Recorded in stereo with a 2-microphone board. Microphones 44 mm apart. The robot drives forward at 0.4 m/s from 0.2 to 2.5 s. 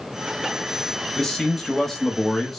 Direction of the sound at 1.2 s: 5° left (ahead or behind).